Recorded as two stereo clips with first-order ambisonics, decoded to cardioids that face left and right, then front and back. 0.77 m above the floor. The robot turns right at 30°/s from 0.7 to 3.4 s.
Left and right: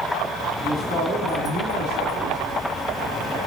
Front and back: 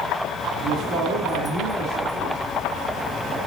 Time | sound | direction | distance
0.6 | a man speaking | 160° right | 2 m